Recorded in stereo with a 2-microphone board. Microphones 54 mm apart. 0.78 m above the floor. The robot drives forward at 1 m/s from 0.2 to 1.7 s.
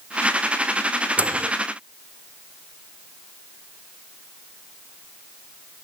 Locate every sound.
1.2 s a microwave: 30° right (ahead or behind); by 1.5 s 35° right (ahead or behind)